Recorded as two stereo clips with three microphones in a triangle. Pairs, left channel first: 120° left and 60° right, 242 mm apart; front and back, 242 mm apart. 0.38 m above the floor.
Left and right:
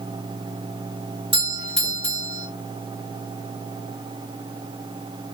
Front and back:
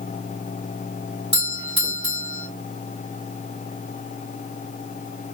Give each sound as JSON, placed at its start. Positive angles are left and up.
{"t": 1.3, "sound": "a doorbell", "azimuth_deg": -35, "distance_m": 1.7}